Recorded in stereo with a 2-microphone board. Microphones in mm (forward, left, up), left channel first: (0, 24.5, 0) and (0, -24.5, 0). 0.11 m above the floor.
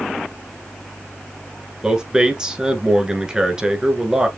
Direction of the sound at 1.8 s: 15° right (ahead or behind).